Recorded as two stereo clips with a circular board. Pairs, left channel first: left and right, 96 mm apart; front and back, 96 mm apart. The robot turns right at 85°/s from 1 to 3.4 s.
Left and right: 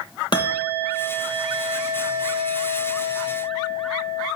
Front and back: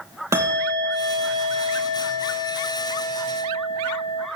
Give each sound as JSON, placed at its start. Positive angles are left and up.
{"t": 0.3, "sound": "a bell", "azimuth_deg": 120, "distance_m": 3.0}